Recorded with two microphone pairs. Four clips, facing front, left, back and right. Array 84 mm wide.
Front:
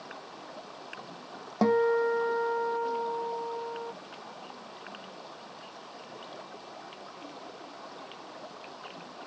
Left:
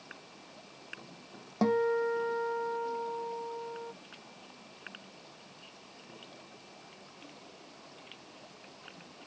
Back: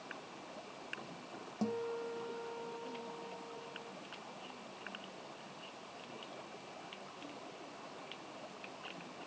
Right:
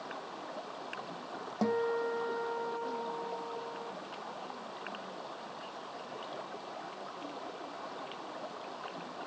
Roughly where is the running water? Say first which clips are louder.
Right 10 dB, front 5 dB; ahead right.